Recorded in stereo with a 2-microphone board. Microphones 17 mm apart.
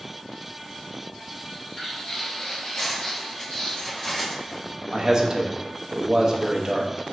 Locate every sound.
1.4 s footsteps: 20° left (ahead or behind), 1.8 m; by 3.8 s 50° left (ahead or behind), 1.9 m
2.8 s cutlery clinking: 40° left (ahead or behind), 1.2 m
4.9 s a man speaking: 30° right (ahead or behind), 0.6 m